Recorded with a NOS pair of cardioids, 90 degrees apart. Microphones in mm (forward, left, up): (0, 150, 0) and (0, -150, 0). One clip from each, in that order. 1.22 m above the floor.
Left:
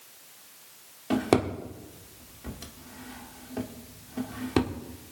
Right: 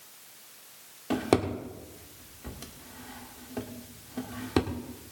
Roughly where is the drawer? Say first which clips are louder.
Left 1 dB; ahead.